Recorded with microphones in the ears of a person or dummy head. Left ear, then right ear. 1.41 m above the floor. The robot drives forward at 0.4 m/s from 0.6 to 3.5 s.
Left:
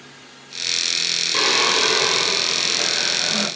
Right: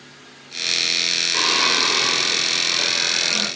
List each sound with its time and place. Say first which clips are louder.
1.3 s singing: left 1 dB; 5° left (ahead or behind), 0.8 m; by 3.5 s centre (ahead or behind), 1.7 m